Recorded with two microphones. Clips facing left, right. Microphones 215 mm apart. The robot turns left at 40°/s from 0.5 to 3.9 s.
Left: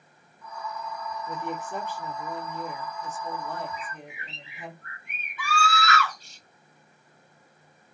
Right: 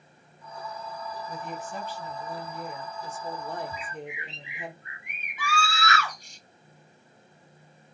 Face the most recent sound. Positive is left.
turn(degrees=-15)  # may be behind; listen again after turning